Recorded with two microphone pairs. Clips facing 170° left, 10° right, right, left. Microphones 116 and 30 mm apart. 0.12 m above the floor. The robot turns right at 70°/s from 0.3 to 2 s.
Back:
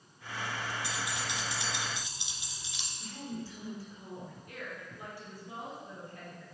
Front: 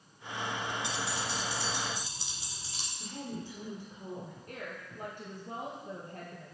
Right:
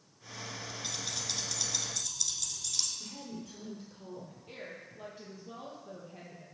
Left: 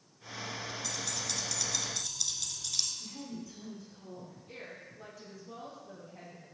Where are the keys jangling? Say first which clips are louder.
Front 2 dB, right 2 dB; 65° right, 1.3 m; by 2.9 s 15° left, 1.3 m.